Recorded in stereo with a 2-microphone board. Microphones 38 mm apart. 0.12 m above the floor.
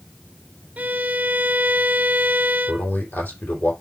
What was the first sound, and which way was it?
A violin, 50° right (ahead or behind).